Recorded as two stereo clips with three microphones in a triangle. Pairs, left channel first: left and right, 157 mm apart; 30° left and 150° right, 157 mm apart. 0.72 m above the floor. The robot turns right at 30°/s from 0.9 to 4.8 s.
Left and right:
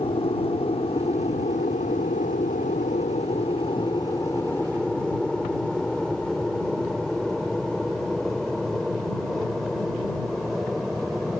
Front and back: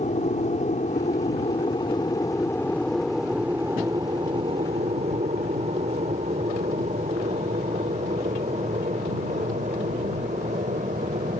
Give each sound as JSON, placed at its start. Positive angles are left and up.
{"t": 0.0, "sound": "an aircraft", "azimuth_deg": 50}